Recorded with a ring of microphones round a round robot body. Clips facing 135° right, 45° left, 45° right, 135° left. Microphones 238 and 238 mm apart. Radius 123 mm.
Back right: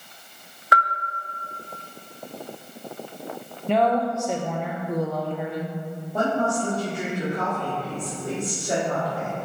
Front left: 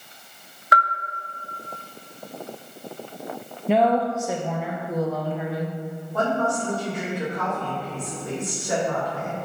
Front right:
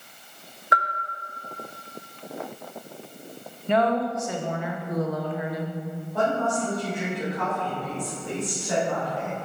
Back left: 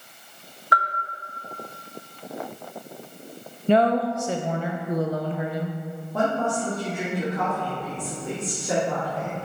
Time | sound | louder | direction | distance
0.7 | a bell | even, even | 115° right | 0.5 m
3.7 | a woman speaking | front left 2 dB, back left 3 dB | 130° left | 0.6 m
6.1 | a woman speaking | back right 1 dB, back left 1 dB | 160° left | 2.5 m